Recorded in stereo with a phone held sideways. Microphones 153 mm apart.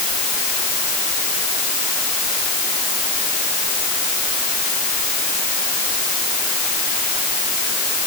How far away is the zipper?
I don't hear a zipper.